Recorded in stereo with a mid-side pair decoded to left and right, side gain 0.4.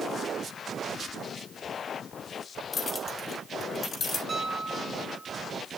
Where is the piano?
40° right, 2.5 m.